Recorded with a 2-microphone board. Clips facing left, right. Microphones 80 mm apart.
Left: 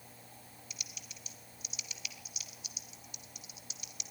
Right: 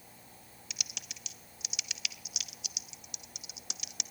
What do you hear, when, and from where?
0.7 s typing on a keyboard: 70° right (ahead or behind), 0.7 m